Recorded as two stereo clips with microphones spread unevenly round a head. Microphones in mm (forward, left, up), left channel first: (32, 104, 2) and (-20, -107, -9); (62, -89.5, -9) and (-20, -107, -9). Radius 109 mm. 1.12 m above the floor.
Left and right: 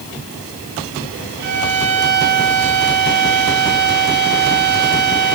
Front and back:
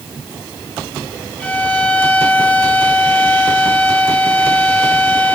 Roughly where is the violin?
Ahead right.